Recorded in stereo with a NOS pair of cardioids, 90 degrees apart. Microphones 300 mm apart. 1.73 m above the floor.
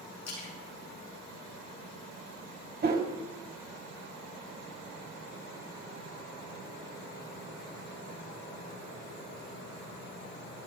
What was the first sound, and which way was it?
A splash, 65° left.